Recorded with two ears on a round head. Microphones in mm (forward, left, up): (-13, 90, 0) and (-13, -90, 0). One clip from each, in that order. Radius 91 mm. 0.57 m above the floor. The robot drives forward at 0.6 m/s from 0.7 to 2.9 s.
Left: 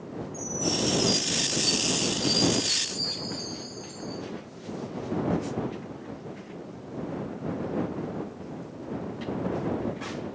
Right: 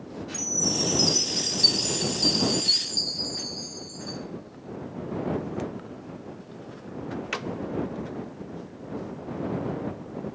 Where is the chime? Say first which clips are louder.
Right 3 dB; 75° right (ahead or behind), 2.5 m; by 4.2 s 65° right (ahead or behind), 2.5 m.